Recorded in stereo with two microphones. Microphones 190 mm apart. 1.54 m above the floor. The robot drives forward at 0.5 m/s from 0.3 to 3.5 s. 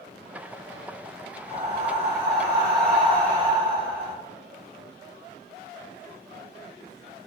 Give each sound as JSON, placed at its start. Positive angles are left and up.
{"t": 1.5, "sound": "breathing", "side_deg": -30, "distance_m": 1.5}